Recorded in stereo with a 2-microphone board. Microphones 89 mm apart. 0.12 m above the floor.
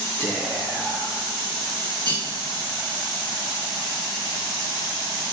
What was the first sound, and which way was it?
Whispering, 40° left (ahead or behind).